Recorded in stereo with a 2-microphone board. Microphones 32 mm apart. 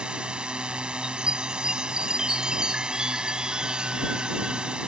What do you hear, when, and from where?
0.0 s a drone: 30° right (ahead or behind)
1.0 s a chime: 25° right (ahead or behind)